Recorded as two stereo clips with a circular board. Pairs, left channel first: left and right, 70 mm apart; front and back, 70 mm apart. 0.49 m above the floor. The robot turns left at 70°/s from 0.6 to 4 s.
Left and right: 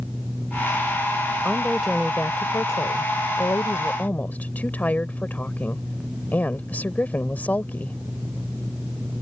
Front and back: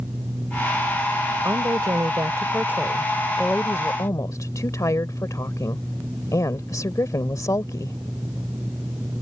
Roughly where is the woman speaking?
Behind right.